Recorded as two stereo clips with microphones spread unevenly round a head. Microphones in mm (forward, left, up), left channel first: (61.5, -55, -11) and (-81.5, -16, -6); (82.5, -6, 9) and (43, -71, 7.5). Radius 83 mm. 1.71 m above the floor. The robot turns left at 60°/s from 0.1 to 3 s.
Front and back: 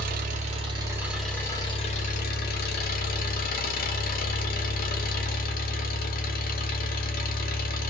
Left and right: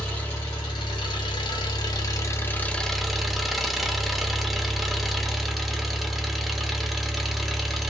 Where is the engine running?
140° left, 0.7 m; by 7.9 s 30° right, 0.7 m.